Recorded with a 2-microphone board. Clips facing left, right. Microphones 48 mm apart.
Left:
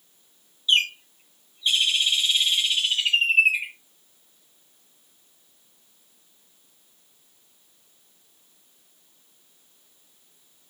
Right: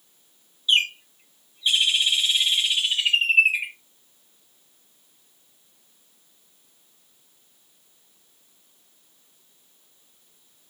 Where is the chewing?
I don't hear chewing.